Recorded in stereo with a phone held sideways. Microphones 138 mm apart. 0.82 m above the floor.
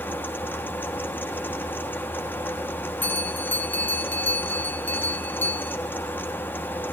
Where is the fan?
15° left (ahead or behind), 1.3 m.